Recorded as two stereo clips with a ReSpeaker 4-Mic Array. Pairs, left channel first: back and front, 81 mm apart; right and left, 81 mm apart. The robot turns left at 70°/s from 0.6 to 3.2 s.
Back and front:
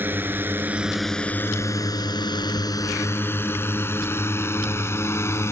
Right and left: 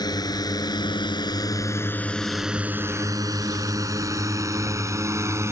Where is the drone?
65° right; by 5.5 s 135° left.